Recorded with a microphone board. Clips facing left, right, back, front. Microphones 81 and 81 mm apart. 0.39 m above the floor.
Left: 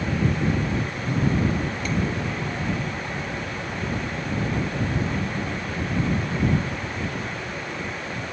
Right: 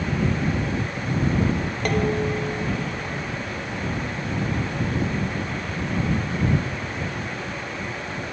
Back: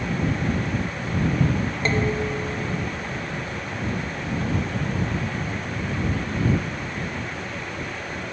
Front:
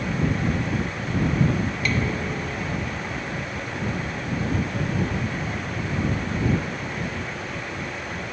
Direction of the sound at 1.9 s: 120° right.